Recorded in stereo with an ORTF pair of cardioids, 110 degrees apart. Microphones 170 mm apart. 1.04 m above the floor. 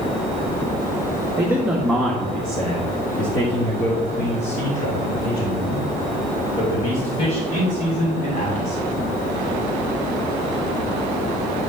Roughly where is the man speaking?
Ahead.